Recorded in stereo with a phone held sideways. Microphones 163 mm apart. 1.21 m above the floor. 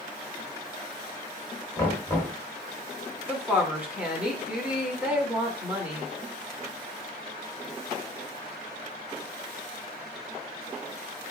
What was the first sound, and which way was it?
Knocking, 10° left (ahead or behind).